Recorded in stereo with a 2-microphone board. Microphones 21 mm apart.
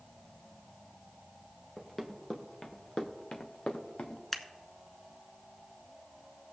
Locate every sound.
1.8 s running footsteps: 15° left (ahead or behind), 1.4 m; by 4.2 s 75° left (ahead or behind), 1.4 m
4.3 s scissors: 10° left (ahead or behind), 0.9 m